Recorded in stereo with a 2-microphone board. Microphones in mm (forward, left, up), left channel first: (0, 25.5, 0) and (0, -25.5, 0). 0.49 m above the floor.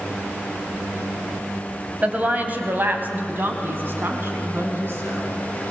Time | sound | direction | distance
2.0 | a woman speaking | 30° right (ahead or behind) | 2.5 m